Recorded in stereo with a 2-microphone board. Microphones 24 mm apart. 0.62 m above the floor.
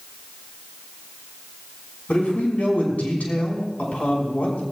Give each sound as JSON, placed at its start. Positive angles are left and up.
{"t": 2.1, "sound": "a man speaking", "side_deg": 80, "distance_m": 6.0}